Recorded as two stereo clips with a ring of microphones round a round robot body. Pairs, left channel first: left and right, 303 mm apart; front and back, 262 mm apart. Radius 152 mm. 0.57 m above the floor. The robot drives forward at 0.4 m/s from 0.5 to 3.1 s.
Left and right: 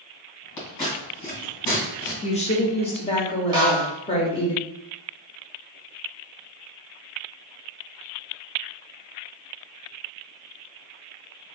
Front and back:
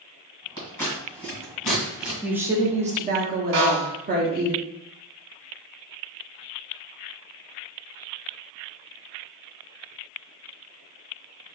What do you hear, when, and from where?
0.6 s scissors: 75° left, 1.8 m; by 2.1 s 95° left, 1.8 m
2.2 s a woman speaking: 95° left, 0.6 m; by 4.5 s 150° left, 0.7 m
3.5 s a snare drum: 165° right, 1.3 m